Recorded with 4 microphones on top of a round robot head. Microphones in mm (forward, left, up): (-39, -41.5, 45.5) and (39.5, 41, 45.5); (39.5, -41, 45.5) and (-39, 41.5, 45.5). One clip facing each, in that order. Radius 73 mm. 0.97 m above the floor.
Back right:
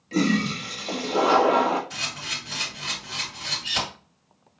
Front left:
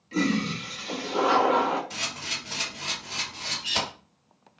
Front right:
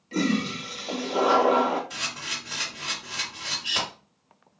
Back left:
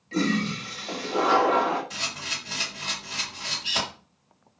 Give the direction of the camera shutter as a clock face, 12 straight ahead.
9 o'clock.